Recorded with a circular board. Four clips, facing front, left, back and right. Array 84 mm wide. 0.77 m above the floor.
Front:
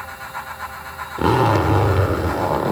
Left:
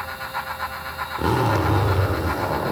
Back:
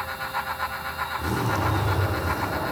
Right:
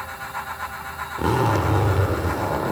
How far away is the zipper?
About 1.6 m.